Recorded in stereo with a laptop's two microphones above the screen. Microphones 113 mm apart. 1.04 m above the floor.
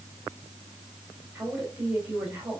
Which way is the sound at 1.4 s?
10° right (ahead or behind).